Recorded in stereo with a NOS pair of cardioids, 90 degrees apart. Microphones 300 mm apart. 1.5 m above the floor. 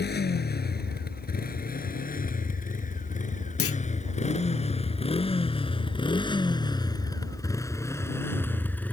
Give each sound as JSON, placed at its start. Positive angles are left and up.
{"t": 0.0, "sound": "a motorcycle", "azimuth_deg": 35}
{"t": 3.6, "sound": "a clunk", "azimuth_deg": 50}